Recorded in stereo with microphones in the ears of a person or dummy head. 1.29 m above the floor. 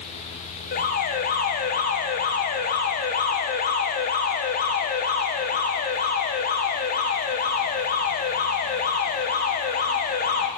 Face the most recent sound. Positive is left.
turn(degrees=35)  # may be behind; listen again after turning